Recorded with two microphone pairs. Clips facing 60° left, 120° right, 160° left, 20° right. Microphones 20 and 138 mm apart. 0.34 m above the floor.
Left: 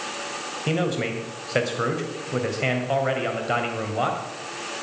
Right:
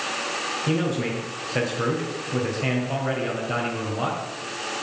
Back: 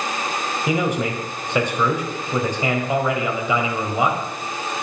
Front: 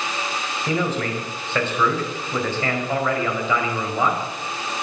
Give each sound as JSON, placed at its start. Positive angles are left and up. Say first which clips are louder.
{"t": 0.7, "sound": "a man speaking", "louder": "left 2 dB, back 2 dB", "azimuth_deg": 85, "distance_m": 2.0}